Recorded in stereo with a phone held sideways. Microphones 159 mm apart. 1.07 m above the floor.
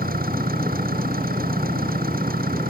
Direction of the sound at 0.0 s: 65° right (ahead or behind).